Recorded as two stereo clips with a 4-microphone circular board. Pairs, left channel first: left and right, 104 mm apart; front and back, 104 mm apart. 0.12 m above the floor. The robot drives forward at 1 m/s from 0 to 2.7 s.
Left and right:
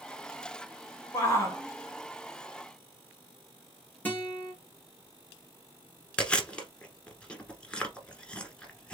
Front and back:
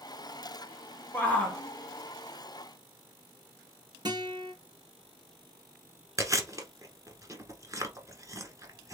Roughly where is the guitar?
Behind left.